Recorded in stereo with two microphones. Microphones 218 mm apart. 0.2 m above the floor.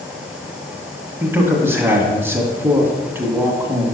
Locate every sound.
1.2 s a man speaking: 10° right (ahead or behind), 1.5 m